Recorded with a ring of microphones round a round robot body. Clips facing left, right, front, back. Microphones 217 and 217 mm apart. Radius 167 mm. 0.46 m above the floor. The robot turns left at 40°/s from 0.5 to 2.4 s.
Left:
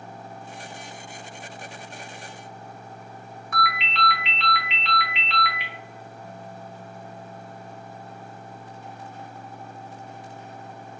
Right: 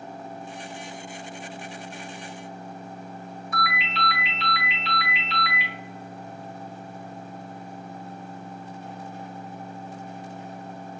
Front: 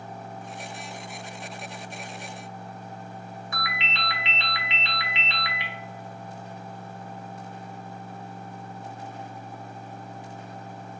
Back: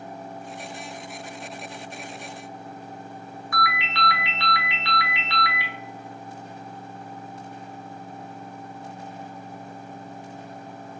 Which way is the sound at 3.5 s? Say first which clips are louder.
Left 2 dB, back 8 dB; 70° left.